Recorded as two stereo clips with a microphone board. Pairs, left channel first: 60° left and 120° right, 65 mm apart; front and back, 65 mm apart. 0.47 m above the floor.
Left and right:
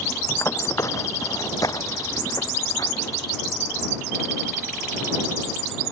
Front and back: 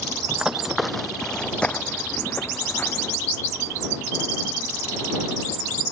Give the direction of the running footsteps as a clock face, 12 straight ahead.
8 o'clock.